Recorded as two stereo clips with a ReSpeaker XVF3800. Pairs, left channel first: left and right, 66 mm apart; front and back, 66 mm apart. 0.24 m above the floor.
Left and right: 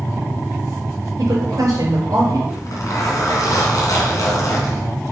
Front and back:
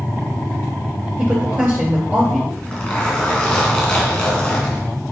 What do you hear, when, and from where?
1.2 s a woman speaking: 115° right, 4 m
2.5 s a zipper: 75° left, 3 m